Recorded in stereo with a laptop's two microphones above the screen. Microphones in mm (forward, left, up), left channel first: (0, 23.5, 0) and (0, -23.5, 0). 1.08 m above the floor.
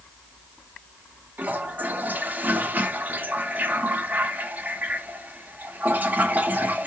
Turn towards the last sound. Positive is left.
turn(degrees=-35)  # may be behind; listen again after turning